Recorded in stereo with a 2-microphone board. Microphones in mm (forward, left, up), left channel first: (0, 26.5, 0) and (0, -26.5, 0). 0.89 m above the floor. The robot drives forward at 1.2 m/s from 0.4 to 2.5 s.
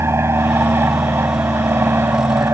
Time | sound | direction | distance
0.0 | an aircraft | 55° right (ahead or behind) | ?